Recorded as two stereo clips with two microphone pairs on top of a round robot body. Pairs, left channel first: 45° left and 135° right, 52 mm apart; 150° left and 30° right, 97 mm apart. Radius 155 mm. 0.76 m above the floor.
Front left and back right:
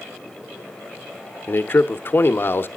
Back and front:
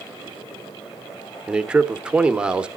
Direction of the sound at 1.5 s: 40° left.